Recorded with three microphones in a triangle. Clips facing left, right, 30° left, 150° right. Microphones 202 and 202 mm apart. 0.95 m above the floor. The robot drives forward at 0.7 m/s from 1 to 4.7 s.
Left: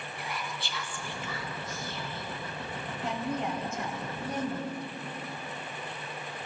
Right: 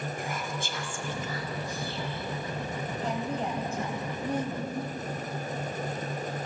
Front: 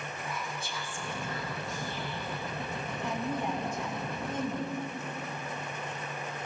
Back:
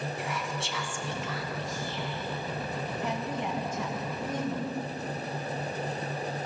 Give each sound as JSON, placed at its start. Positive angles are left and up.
{"t": 0.2, "sound": "whispering", "azimuth_deg": -135, "distance_m": 1.2}
{"t": 3.0, "sound": "a woman speaking", "azimuth_deg": -145, "distance_m": 4.5}